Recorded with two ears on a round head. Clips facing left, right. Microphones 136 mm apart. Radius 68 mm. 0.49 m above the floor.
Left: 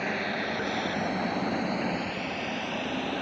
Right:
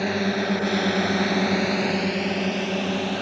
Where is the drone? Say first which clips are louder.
Right 7 dB; 45° right (ahead or behind); by 3.2 s 50° right (ahead or behind).